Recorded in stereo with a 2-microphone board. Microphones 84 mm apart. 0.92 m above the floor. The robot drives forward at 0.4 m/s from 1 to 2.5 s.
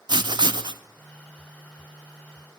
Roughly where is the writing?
Right.